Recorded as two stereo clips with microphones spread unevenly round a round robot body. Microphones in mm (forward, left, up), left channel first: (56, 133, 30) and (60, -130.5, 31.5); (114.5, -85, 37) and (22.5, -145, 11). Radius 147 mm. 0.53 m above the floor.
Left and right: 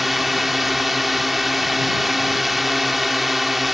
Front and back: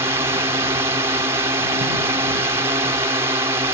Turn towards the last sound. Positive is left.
turn(degrees=180)